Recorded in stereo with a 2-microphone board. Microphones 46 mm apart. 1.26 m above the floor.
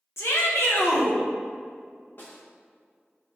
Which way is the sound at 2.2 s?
50° left (ahead or behind).